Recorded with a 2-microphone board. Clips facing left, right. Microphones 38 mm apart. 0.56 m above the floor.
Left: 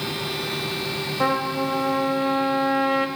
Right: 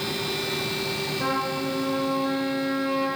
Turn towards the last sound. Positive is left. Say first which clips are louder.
# left 6 dB
turn(degrees=50)  # may be behind; listen again after turning